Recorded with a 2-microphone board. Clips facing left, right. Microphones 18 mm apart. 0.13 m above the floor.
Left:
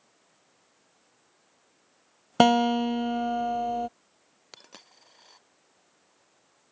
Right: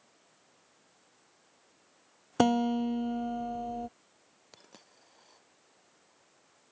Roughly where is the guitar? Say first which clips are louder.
Left 6 dB; left.